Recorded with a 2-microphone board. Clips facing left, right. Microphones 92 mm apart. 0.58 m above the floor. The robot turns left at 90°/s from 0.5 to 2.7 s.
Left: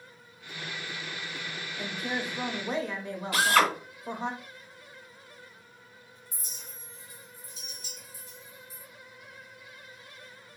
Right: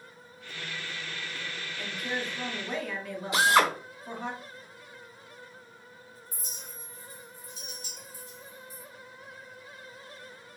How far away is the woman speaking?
About 0.8 m.